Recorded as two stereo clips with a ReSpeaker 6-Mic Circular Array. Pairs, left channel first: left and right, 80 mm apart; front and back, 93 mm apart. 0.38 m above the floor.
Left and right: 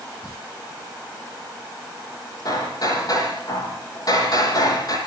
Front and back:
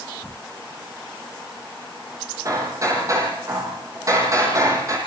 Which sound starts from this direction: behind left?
Hammering, at 2.5 s.